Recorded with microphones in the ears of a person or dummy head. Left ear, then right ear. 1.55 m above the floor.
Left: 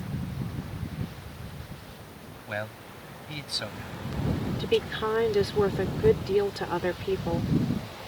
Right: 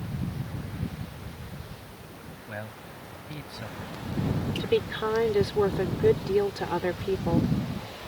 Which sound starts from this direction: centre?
A woman speaking, at 4.6 s.